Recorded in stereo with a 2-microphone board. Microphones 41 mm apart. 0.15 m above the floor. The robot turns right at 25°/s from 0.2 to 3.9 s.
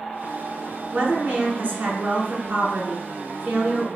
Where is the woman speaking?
115° right, 1.5 m; by 3.9 s 40° right, 1.5 m.